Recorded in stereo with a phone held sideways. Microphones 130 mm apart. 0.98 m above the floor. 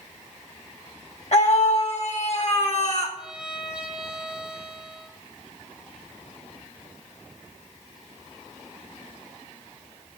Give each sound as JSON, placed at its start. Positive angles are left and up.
{"t": 1.3, "sound": "a scream", "side_deg": 55, "distance_m": 1.8}
{"t": 3.2, "sound": "a violin", "side_deg": -5, "distance_m": 2.0}